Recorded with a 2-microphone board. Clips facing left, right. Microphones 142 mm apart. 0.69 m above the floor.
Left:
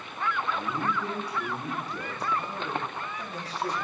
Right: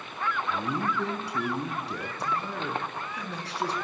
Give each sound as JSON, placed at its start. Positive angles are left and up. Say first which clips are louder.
{"t": 0.5, "sound": "a man speaking", "louder": "right 1 dB", "side_deg": -75, "distance_m": 6.0}